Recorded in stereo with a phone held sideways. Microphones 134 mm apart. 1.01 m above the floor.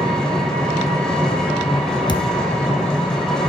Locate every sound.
0.0 s an engine running: 5° left (ahead or behind), 1.6 m
2.1 s a thud: 35° left (ahead or behind), 0.5 m